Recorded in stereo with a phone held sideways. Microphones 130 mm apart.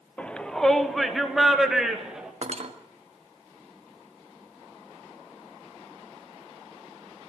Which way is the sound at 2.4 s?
55° right (ahead or behind).